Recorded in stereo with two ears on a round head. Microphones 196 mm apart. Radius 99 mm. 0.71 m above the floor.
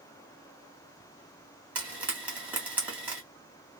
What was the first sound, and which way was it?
Frying, 10° right (ahead or behind).